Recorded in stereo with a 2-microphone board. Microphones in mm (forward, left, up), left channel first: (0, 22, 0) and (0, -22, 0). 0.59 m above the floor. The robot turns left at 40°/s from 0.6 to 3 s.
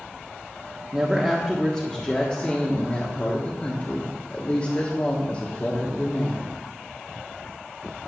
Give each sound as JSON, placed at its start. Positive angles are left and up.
{"t": 0.9, "sound": "a woman speaking", "azimuth_deg": -170, "distance_m": 1.3}